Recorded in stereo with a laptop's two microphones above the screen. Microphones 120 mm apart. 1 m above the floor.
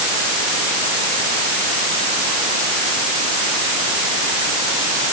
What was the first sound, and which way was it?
Only background noise.